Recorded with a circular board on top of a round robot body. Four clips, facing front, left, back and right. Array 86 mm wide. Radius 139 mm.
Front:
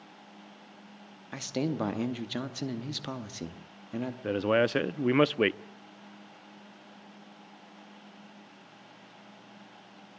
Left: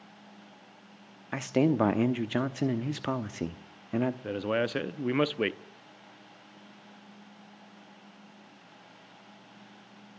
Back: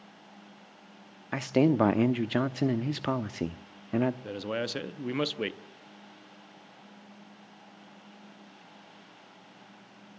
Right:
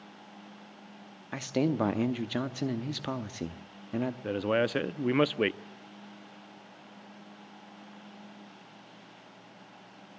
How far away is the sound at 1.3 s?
About 1.1 m.